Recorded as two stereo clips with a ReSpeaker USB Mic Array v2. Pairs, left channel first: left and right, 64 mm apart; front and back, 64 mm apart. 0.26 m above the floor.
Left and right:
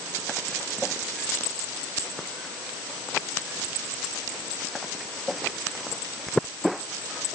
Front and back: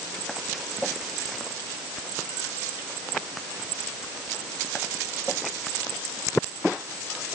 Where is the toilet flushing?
I don't hear a toilet flushing.